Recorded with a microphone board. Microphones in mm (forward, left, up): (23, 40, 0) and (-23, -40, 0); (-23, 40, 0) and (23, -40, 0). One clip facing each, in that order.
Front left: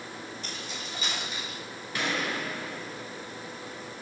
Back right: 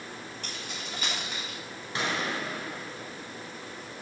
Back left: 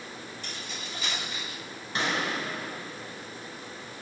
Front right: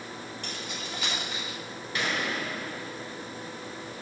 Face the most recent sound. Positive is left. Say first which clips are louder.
# even, back left 1 dB
turn(degrees=180)